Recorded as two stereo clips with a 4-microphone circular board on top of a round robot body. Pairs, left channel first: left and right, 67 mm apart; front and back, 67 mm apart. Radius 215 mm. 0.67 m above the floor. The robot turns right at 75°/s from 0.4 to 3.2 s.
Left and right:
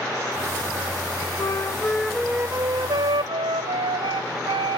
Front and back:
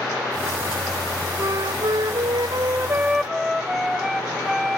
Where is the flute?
130° left, 0.6 m; by 4.8 s 95° right, 0.6 m.